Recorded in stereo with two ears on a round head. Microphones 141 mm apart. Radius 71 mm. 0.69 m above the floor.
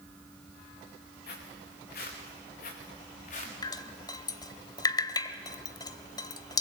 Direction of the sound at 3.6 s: 25° left (ahead or behind).